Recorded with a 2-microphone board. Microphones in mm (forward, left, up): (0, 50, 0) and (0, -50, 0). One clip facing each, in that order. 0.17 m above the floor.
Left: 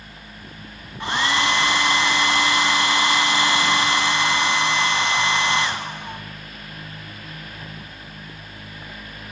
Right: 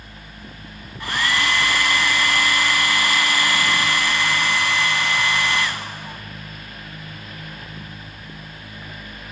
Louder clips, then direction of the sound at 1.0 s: Left 1 dB; 25° left (ahead or behind).